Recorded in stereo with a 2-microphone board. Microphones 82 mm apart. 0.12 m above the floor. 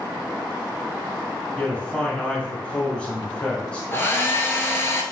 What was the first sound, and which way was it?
A man speaking, 15° left (ahead or behind).